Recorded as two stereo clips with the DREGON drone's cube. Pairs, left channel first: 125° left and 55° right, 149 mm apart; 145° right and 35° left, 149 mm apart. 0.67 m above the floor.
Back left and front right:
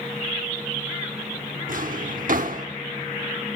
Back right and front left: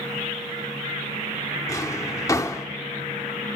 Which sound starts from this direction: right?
A drawer, at 1.7 s.